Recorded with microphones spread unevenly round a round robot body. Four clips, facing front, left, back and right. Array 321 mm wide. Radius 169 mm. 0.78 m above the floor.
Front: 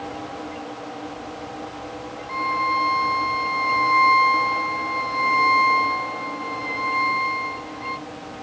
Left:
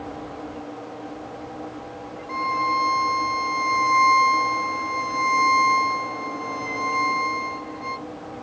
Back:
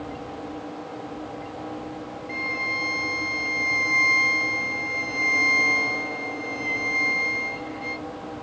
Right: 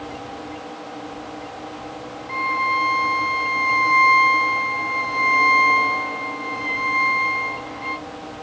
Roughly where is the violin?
Behind left.